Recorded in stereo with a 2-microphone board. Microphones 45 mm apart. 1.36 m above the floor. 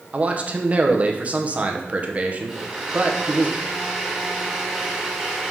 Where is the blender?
10° right (ahead or behind), 2.5 m.